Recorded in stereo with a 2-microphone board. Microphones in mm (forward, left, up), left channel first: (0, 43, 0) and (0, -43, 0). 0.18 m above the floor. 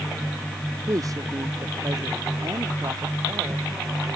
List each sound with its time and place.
0.9 s a woman speaking: 40° right (ahead or behind); by 3.6 s 50° right (ahead or behind)